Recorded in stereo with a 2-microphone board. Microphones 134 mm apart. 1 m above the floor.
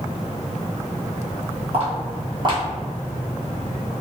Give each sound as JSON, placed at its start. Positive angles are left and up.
{"t": 1.7, "sound": "footsteps", "side_deg": -45, "distance_m": 1.3}